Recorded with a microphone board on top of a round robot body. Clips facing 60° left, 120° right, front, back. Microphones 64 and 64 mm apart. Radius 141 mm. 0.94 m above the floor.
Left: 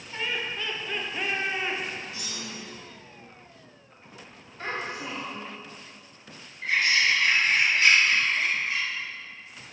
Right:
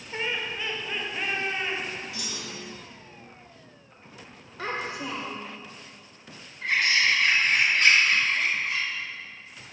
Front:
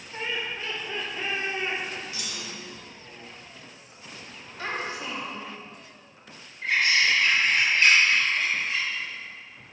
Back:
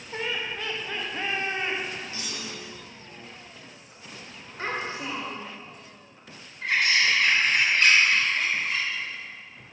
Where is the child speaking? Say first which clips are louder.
Right 1 dB, back 1 dB; 120° right, 2.5 m.